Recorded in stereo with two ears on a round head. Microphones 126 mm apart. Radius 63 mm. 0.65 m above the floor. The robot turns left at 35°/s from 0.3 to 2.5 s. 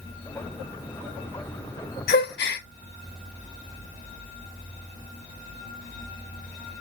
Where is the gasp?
75° left (ahead or behind), 0.8 m; by 2.6 s 80° left, 0.8 m.